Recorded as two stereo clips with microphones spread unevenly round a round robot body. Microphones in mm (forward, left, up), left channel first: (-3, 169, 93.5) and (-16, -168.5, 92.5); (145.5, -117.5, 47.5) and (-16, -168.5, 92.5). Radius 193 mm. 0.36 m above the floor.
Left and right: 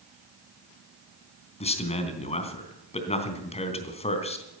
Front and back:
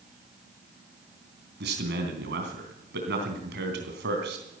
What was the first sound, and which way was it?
A man speaking, 160° left.